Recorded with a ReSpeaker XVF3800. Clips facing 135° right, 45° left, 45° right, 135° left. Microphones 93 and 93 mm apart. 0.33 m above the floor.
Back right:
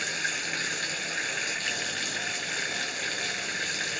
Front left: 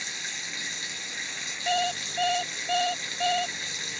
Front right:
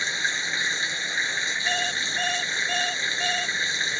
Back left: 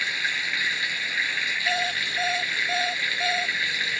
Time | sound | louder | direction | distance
0.0 | running water | back right 7 dB, front right 1 dB | 110° right | ?
1.7 | an alarm clock | front left 7 dB, back left 3 dB | 55° left | ?